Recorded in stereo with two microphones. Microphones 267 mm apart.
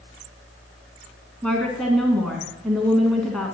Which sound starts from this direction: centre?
A woman speaking, at 1.4 s.